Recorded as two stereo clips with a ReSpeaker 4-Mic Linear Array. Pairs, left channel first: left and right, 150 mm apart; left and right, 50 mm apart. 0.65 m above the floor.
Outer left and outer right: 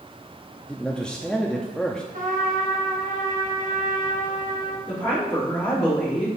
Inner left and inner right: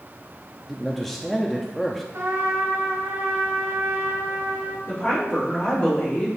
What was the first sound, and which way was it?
A man speaking, 5° left (ahead or behind).